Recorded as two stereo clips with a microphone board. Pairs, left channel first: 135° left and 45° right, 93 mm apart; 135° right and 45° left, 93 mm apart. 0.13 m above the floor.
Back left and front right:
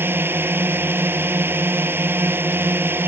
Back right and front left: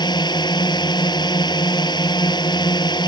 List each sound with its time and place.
0.0 s a drone: 110° right